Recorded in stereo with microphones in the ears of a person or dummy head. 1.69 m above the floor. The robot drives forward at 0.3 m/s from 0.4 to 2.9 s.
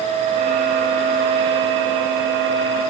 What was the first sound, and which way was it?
Only background noise.